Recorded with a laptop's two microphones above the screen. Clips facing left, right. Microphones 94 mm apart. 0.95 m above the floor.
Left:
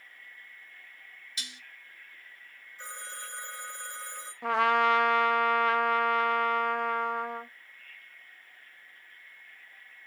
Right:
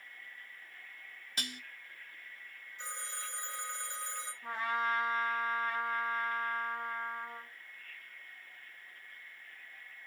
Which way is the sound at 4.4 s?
75° left (ahead or behind).